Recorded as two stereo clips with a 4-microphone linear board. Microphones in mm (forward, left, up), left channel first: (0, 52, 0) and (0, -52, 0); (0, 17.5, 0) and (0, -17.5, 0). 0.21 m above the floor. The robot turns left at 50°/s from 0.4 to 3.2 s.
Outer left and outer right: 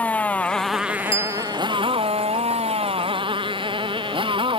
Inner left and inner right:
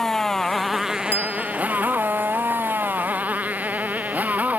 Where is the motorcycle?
15° left (ahead or behind); by 4.6 s 55° right (ahead or behind).